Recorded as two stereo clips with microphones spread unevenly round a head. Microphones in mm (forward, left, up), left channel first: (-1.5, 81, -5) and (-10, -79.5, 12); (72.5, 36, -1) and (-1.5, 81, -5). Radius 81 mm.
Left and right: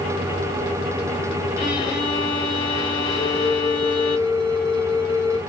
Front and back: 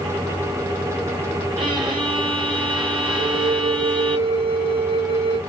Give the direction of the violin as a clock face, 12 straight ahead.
7 o'clock.